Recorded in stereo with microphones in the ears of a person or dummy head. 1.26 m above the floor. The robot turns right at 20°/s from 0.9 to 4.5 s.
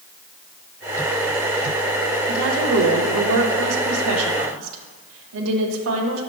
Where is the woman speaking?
125° right, 1.0 m; by 6.2 s 80° right, 1.0 m.